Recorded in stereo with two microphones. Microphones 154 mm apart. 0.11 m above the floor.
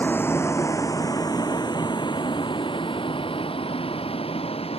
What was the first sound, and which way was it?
A vehicle, 10° left (ahead or behind).